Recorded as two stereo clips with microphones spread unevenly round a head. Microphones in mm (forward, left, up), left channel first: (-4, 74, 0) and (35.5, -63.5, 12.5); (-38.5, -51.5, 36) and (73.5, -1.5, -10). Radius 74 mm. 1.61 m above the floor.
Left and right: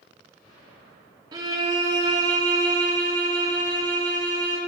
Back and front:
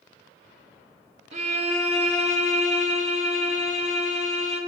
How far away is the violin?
About 1.5 m.